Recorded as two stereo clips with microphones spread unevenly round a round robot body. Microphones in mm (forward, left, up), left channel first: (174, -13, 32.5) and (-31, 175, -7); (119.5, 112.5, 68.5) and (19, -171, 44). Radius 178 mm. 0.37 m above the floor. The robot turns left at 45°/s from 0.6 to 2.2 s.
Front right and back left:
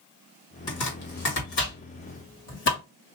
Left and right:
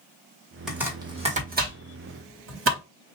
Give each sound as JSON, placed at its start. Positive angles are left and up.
{"t": 0.7, "sound": "chopping", "azimuth_deg": -25, "distance_m": 2.0}